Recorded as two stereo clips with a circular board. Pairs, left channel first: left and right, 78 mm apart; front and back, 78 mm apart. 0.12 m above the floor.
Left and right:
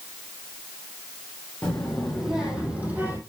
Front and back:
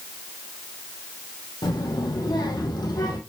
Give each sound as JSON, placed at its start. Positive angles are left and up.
{"t": 1.6, "sound": "a child speaking", "azimuth_deg": 5, "distance_m": 3.0}